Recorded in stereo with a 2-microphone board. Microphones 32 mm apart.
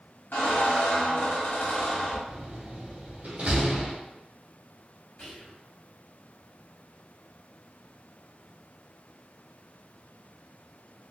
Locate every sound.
0.3 s a squeak: 65° left (ahead or behind), 1.4 m
2.3 s a door slam: 50° right (ahead or behind), 1.9 m
5.2 s whispering: 50° left (ahead or behind), 1.8 m